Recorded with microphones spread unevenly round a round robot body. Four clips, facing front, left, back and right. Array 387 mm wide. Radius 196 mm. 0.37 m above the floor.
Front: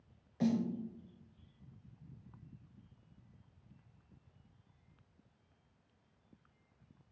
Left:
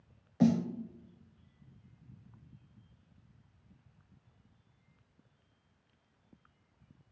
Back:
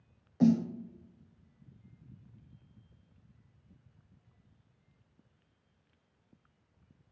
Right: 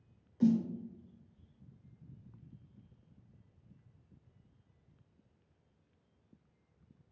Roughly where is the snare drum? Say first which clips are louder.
Left 1 dB, back 7 dB; left.